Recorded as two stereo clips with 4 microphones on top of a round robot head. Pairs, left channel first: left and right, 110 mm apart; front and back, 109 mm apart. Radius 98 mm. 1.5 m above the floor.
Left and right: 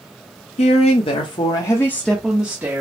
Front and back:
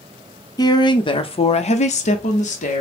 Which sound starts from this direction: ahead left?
A woman speaking, at 0.6 s.